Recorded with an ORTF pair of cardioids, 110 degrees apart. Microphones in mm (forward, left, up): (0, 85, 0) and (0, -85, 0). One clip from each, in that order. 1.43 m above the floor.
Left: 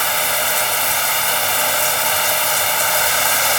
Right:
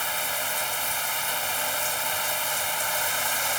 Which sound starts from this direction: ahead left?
Running water, at 0.0 s.